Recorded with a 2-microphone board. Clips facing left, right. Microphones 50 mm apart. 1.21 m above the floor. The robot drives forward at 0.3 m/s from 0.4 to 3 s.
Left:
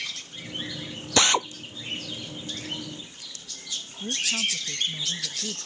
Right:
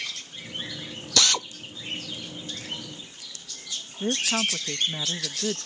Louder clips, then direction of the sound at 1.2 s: Left 4 dB; 25° left (ahead or behind).